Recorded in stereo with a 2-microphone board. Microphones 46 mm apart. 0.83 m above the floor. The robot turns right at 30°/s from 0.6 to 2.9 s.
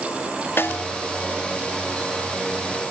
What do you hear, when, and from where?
0.6 s a snare drum: 55° left (ahead or behind), 0.5 m; by 0.9 s 50° left (ahead or behind), 0.5 m